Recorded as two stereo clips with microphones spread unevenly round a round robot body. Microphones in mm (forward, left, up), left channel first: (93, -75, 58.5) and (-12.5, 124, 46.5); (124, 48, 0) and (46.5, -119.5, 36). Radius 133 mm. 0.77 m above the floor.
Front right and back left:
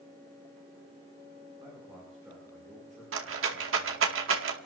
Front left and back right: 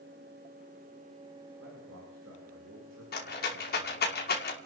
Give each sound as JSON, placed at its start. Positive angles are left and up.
{"t": 1.6, "sound": "a man speaking", "azimuth_deg": -165, "distance_m": 8.0}
{"t": 3.1, "sound": "a rattle", "azimuth_deg": 100, "distance_m": 2.5}